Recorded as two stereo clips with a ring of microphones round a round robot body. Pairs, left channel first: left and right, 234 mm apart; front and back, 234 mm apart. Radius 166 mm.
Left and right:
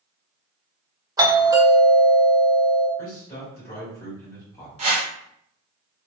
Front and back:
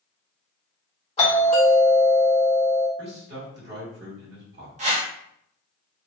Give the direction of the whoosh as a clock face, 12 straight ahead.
5 o'clock.